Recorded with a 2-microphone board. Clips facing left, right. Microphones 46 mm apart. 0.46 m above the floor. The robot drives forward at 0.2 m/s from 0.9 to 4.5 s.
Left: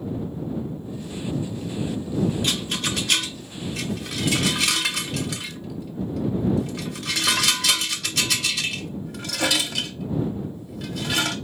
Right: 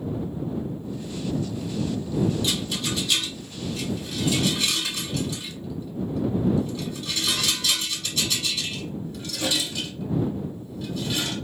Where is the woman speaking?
I don't hear a woman speaking.